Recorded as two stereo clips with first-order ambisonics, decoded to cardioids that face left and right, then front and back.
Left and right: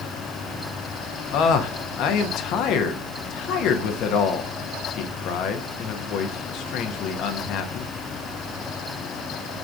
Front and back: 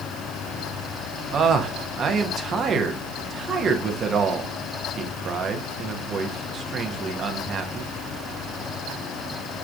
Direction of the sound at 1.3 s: 115° left.